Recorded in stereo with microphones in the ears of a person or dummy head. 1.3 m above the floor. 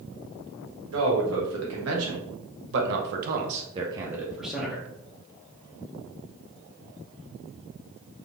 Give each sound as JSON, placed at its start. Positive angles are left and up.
{"t": 0.9, "sound": "a man speaking", "side_deg": -80, "distance_m": 1.6}